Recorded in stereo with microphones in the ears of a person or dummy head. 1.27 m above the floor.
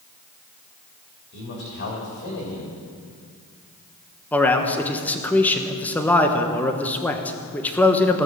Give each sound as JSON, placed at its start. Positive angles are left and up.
{"t": 1.3, "sound": "a man speaking", "side_deg": 60, "distance_m": 3.5}
{"t": 4.3, "sound": "a man speaking", "side_deg": 5, "distance_m": 1.1}